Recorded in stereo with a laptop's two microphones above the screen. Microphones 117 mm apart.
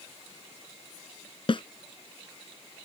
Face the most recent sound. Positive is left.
turn(degrees=50)  # may be behind; listen again after turning